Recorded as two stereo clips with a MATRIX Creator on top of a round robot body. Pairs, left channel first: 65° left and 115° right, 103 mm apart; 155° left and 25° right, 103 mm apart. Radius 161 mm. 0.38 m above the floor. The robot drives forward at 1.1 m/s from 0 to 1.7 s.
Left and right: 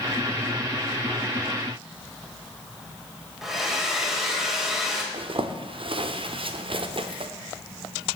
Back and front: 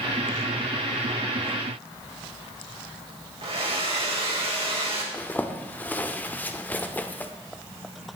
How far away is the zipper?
About 0.9 m.